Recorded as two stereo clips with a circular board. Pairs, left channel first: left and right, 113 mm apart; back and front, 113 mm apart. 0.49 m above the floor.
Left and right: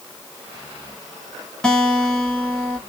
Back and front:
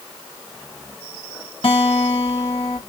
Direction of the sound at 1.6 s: 175° left.